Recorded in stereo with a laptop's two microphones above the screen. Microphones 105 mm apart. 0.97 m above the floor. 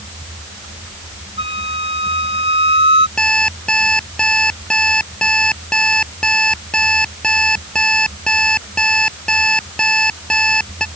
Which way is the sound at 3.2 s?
10° left (ahead or behind).